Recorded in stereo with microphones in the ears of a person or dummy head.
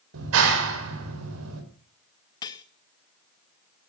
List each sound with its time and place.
0.1 s a clap: 80° right, 4.5 m
2.4 s cutlery clinking: 20° left (ahead or behind), 0.7 m